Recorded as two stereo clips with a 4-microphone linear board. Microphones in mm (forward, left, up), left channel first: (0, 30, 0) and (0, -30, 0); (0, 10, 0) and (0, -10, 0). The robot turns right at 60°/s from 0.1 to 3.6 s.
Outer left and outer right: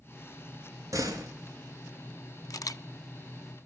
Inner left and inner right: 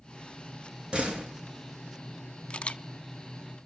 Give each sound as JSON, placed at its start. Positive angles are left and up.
{"t": 0.9, "sound": "a door slam", "side_deg": -60, "distance_m": 3.0}
{"t": 2.5, "sound": "a camera shutter", "side_deg": 70, "distance_m": 0.5}